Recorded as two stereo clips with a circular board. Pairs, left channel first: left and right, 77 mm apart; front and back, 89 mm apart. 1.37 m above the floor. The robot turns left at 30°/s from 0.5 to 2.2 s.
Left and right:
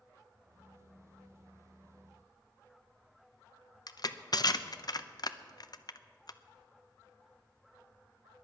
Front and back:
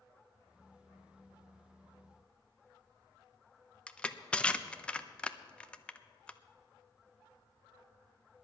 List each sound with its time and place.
3.9 s crushing: 75° left, 0.6 m